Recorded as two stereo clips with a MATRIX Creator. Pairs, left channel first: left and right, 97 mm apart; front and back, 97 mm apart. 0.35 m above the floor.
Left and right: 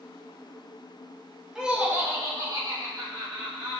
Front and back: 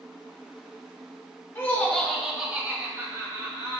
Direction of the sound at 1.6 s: 15° right.